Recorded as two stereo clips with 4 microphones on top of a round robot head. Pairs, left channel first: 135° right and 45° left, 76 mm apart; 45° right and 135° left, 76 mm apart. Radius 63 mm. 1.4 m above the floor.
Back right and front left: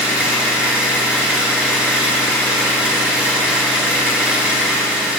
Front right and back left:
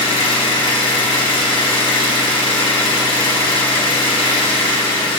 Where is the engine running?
30° right, 1.5 m.